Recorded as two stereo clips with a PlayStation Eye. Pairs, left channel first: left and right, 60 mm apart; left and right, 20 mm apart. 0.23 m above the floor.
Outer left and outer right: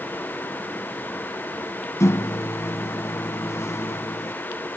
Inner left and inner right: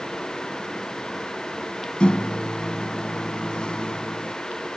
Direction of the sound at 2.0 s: 55° left (ahead or behind).